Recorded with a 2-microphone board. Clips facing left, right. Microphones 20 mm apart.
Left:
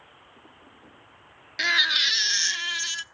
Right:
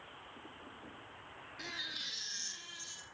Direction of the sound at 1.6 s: 70° left (ahead or behind).